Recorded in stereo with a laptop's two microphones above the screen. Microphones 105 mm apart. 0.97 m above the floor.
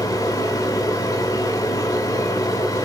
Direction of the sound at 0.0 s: 35° left (ahead or behind).